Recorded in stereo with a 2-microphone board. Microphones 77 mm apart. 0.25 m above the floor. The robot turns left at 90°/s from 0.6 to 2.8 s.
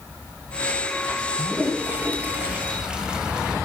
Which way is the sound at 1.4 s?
10° right (ahead or behind).